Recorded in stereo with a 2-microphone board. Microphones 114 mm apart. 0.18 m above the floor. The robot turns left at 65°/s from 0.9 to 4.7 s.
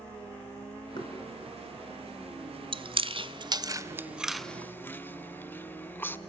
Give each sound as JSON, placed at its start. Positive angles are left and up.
{"t": 1.0, "sound": "knocking", "side_deg": 40, "distance_m": 3.0}
{"t": 2.7, "sound": "chewing", "side_deg": -50, "distance_m": 0.5}